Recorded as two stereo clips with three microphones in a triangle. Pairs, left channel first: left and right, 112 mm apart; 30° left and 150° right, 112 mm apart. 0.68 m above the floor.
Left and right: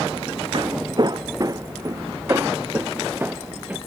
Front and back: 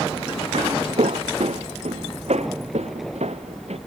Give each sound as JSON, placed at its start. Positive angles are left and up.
{"t": 0.5, "sound": "footsteps", "azimuth_deg": -130}